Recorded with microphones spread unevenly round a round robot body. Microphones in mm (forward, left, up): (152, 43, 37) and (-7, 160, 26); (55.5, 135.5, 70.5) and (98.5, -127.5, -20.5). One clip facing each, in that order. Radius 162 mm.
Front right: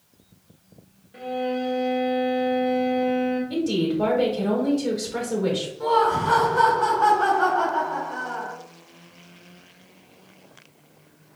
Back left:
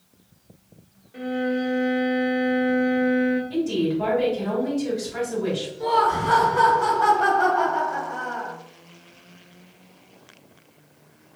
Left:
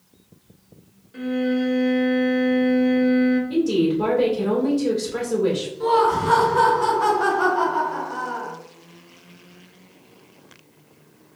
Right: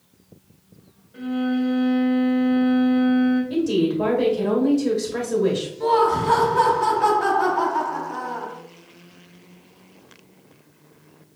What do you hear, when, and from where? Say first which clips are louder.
1.1 s a violin: back left 2 dB, left 1 dB; 75° left, 1.2 m
3.5 s a woman speaking: even, left 1 dB; straight ahead, 1.9 m
5.8 s laughter: front right 2 dB, even; 170° right, 0.8 m